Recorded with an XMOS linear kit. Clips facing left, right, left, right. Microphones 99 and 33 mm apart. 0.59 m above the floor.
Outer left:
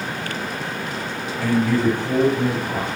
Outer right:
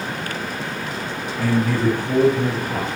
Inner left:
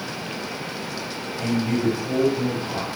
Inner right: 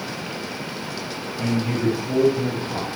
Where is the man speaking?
10° right (ahead or behind), 1.7 m.